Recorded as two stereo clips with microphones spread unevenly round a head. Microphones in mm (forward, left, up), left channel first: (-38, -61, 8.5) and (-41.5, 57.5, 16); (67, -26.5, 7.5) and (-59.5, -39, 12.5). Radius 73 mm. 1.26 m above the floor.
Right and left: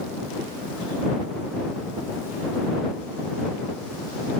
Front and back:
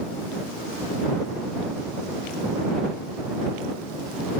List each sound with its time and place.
Only background noise.